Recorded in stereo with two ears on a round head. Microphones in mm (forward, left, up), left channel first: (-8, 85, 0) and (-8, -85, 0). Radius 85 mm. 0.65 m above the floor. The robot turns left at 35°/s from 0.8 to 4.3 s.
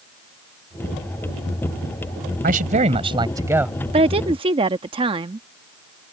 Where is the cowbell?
No cowbell in this recording.